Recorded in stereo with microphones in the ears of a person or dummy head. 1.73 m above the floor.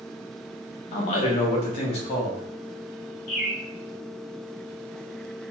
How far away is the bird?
About 0.8 m.